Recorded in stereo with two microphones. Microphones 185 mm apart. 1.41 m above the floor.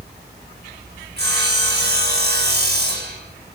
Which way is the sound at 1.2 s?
65° right (ahead or behind).